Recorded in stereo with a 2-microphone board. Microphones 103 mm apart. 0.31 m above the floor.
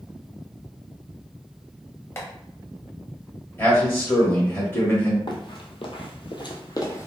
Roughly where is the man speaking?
Left.